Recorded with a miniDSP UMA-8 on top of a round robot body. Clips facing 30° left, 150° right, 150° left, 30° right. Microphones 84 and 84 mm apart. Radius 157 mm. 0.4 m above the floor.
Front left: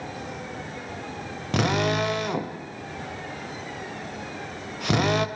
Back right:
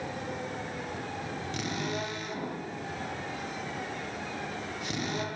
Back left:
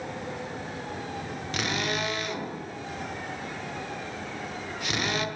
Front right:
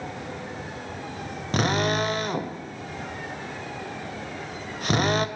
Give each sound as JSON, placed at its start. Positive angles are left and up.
{"t": 1.5, "sound": "a drill", "azimuth_deg": 15, "distance_m": 2.5}